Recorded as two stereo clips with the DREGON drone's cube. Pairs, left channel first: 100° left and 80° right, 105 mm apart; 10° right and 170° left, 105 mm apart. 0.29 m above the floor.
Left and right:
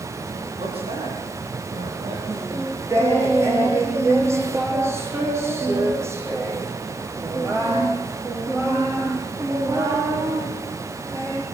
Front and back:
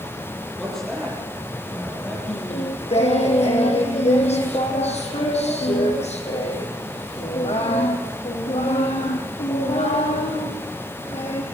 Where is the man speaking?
95° right, 8 m; by 2.2 s 90° right, 7.5 m.